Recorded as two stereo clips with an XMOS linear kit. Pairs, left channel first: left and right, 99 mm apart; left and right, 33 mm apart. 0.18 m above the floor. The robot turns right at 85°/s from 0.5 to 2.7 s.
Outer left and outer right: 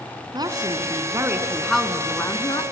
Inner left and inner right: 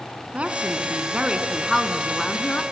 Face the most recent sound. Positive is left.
turn(degrees=80)